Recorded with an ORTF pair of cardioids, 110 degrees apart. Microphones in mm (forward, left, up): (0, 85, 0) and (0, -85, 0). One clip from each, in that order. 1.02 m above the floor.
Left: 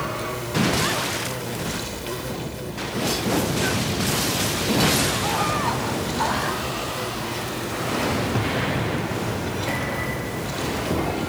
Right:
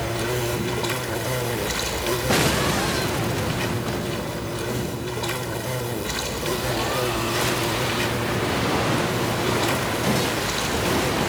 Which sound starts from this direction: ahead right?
An insect, at 0.0 s.